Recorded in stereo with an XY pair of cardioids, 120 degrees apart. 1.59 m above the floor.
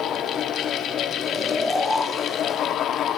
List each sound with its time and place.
0.0 s a fan: 65° left, 2.5 m
1.2 s snoring: 5° left, 8 m